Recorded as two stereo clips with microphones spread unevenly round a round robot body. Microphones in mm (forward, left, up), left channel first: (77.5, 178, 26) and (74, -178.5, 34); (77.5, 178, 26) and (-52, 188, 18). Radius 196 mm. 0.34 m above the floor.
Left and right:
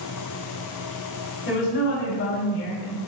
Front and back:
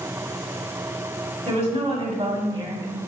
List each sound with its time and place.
1.4 s a woman speaking: 150° left, 2.5 m; by 3.0 s 135° left, 1.6 m